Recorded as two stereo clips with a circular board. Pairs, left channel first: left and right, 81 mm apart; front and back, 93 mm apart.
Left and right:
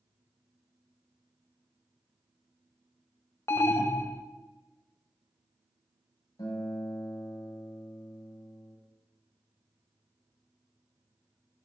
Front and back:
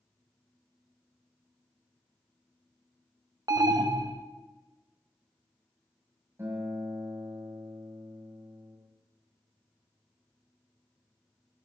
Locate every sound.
3.5 s an alarm: 140° left, 1.0 m
6.4 s a guitar: 115° left, 7.5 m